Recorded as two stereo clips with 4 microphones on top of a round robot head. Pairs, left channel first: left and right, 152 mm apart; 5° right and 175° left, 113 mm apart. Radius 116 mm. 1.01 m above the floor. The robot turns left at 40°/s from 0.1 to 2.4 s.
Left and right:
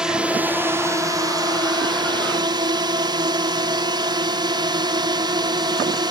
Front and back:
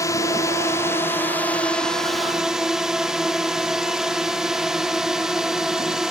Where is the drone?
10° right; by 6.1 s 100° right.